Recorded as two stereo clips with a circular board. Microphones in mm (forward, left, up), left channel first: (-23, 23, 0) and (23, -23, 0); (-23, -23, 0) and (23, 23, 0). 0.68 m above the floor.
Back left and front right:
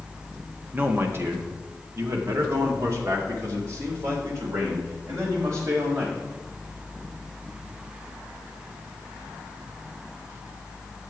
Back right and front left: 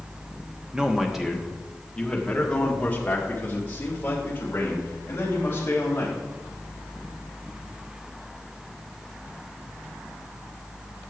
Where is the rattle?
No rattle in this recording.